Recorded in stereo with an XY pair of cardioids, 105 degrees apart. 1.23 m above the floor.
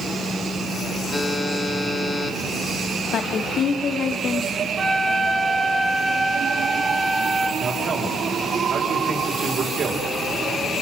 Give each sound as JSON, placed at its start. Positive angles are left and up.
{"t": 1.1, "sound": "a buzzer", "azimuth_deg": 25, "distance_m": 4.5}
{"t": 3.1, "sound": "a woman speaking", "azimuth_deg": 60, "distance_m": 2.0}
{"t": 4.8, "sound": "a flute", "azimuth_deg": -30, "distance_m": 3.5}
{"t": 7.6, "sound": "a man speaking", "azimuth_deg": -50, "distance_m": 5.0}